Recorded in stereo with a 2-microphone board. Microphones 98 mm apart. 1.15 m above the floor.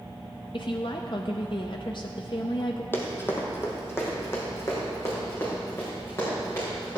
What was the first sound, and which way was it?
A woman speaking, 55° left (ahead or behind).